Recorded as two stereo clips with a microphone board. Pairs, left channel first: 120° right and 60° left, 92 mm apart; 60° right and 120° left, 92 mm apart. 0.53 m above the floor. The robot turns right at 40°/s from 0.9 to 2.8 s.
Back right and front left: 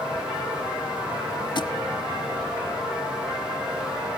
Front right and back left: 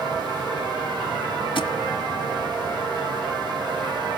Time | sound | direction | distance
1.6 | a thud | 85° right | 1.1 m